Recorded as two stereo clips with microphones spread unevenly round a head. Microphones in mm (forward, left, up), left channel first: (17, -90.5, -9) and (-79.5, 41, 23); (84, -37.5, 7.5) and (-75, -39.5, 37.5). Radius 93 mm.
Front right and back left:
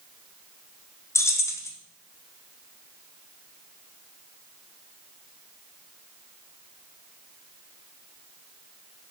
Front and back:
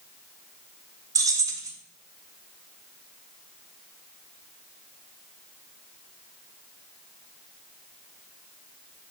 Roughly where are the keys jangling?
Behind right.